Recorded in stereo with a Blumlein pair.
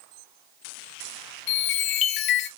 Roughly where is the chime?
Ahead left.